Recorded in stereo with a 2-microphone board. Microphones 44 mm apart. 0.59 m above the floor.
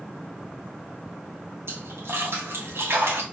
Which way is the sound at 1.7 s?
75° right (ahead or behind).